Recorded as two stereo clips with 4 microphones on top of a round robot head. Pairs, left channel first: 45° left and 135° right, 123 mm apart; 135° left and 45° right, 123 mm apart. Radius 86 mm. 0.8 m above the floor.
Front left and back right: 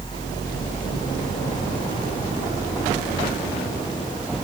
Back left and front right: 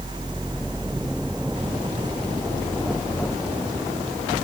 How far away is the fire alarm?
No fire alarm in this recording.